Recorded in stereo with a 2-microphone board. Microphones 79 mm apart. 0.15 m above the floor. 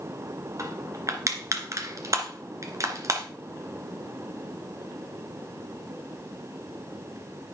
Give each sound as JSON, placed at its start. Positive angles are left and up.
{"t": 0.6, "sound": "crushing", "side_deg": -45, "distance_m": 1.8}